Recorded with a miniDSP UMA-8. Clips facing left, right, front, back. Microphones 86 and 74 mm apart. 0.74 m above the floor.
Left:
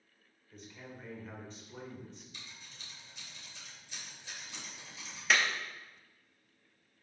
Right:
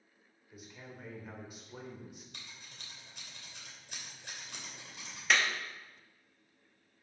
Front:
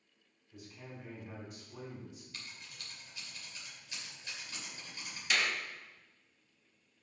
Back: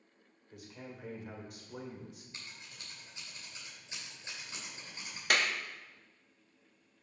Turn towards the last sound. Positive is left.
turn(degrees=180)